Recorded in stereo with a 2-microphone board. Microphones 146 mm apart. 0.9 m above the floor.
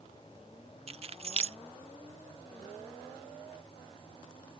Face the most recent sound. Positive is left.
turn(degrees=-45)  # may be behind; listen again after turning